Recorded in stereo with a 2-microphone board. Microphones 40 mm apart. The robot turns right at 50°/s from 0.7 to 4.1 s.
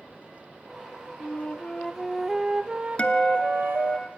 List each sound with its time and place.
1.2 s a flute: 135° left, 0.7 m; by 4.0 s 90° right, 0.7 m
3.0 s a guitar: 55° left, 1.5 m; by 4.1 s 110° left, 1.5 m